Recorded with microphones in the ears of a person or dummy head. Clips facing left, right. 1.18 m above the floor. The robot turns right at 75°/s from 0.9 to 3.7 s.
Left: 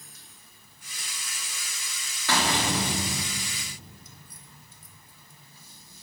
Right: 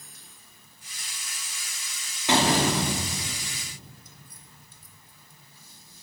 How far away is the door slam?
About 1.9 m.